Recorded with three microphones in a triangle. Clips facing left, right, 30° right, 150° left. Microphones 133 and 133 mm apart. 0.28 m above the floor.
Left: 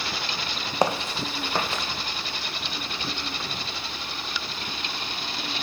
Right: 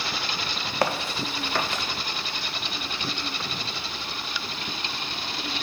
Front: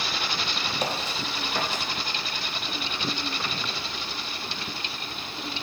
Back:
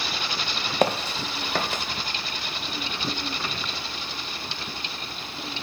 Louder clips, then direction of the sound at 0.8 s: Left 2 dB, back 9 dB; 155° left.